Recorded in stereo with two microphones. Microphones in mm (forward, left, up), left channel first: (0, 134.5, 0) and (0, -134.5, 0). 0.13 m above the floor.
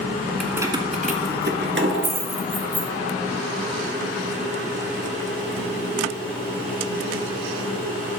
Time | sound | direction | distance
0.4 | keys jangling | centre (ahead or behind) | 0.9 m